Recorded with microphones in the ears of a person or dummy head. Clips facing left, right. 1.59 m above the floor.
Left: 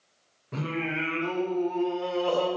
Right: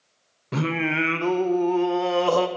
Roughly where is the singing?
Right.